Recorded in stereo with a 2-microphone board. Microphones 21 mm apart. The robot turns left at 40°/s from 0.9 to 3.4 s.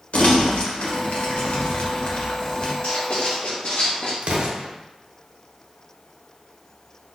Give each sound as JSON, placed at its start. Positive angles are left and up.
{"t": 0.1, "sound": "crumpling", "side_deg": 70, "distance_m": 0.9}
{"t": 2.8, "sound": "writing", "side_deg": 55, "distance_m": 1.2}
{"t": 4.2, "sound": "an explosion", "side_deg": -65, "distance_m": 0.6}